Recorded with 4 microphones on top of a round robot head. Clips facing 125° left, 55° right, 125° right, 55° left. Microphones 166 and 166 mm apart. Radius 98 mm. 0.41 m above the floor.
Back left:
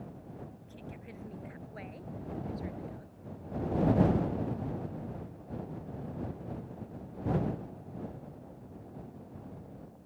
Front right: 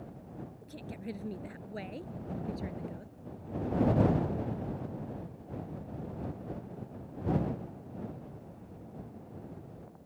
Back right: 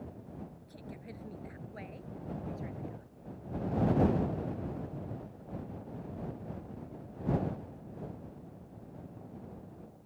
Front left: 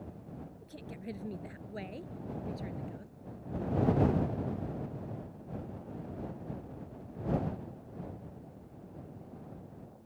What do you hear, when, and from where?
0.6 s a woman speaking: 10° right; by 3.1 s 5° left